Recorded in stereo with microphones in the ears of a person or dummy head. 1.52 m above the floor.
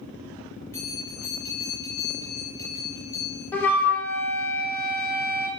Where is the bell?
10° left (ahead or behind), 0.7 m.